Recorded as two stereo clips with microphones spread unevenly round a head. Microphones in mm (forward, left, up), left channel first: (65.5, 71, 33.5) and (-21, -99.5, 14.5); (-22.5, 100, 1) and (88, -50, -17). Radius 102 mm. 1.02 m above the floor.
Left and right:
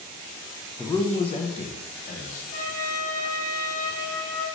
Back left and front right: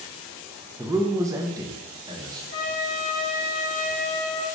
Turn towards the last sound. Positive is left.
turn(degrees=75)